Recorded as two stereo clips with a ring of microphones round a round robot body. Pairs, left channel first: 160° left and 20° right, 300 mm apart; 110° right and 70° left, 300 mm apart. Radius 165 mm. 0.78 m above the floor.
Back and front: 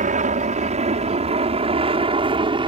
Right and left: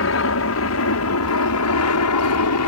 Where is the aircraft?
85° right; by 2.7 s 95° right.